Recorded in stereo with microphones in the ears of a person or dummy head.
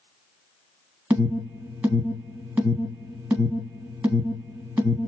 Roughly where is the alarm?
Centre.